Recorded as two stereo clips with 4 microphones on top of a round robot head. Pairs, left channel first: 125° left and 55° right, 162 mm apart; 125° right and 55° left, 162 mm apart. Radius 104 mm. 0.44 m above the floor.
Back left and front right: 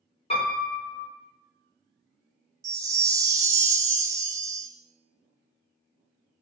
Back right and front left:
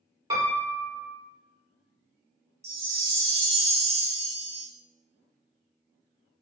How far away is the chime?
About 0.9 m.